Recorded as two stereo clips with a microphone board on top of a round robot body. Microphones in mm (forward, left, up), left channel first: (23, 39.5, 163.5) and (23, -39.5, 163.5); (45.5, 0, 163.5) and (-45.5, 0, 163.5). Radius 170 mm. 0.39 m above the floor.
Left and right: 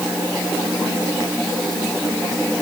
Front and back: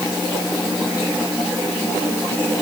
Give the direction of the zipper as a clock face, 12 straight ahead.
I don't hear a zipper.